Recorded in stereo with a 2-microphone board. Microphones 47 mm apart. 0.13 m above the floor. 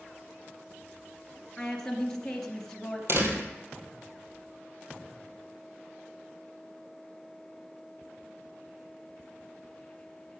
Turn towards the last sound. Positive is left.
turn(degrees=-60)  # may be behind; listen again after turning